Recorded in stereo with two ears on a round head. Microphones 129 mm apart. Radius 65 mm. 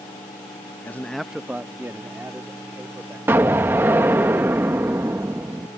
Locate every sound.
0.8 s a man speaking: 15° left (ahead or behind); by 3.2 s 15° right (ahead or behind)
3.3 s an explosion: 15° right (ahead or behind)